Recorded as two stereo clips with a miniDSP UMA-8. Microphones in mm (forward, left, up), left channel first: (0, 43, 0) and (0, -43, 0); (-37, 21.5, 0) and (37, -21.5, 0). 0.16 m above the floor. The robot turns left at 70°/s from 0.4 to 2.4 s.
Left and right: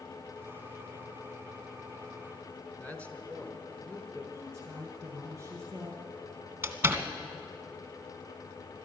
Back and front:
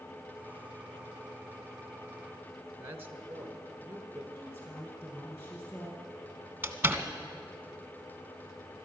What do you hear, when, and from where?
2.8 s a man speaking: 20° left, 1.4 m
4.3 s a woman speaking: 150° right, 4 m
6.6 s a door slam: 60° right, 1.0 m